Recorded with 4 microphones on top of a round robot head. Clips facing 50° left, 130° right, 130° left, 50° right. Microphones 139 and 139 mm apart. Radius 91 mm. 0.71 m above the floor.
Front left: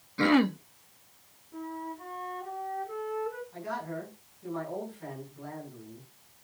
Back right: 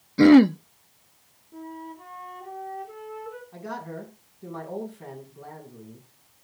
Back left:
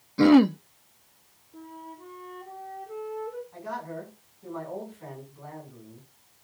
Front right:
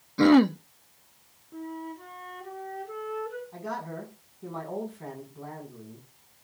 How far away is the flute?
About 3.5 m.